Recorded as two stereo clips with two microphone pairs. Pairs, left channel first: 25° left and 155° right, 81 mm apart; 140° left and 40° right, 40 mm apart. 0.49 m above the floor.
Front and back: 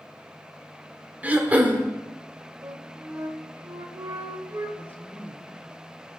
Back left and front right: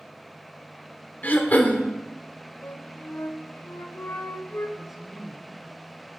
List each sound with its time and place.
1.2 s throat clearing: 140° left, 0.8 m
2.6 s a flute: 160° left, 0.7 m
4.8 s a woman speaking: 35° left, 1.0 m